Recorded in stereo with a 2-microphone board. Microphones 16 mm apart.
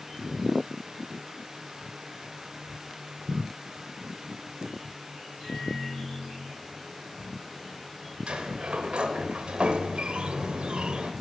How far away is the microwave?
About 4.5 m.